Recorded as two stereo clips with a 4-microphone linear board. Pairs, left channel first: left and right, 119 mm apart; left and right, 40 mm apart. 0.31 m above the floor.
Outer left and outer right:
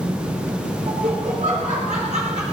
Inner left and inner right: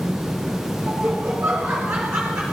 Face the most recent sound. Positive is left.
turn(degrees=-70)  # may be behind; listen again after turning